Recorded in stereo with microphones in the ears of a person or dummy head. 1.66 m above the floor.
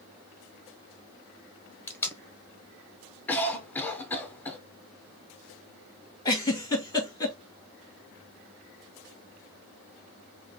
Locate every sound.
1.9 s tape being pulled: 15° left (ahead or behind), 0.9 m
3.3 s a cough: 10° left (ahead or behind), 1.0 m
6.2 s a giggle: 20° left (ahead or behind), 1.6 m